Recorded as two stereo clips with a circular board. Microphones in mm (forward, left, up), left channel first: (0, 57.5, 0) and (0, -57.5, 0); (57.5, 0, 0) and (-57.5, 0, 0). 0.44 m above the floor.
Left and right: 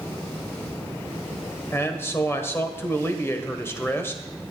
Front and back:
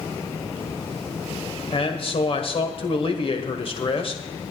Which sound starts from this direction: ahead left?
A man speaking, at 1.7 s.